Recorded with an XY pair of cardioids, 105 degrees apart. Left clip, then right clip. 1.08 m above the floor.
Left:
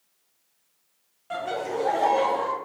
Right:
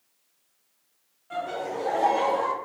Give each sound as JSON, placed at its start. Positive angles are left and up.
{"t": 1.3, "sound": "laughter", "azimuth_deg": 55, "distance_m": 0.8}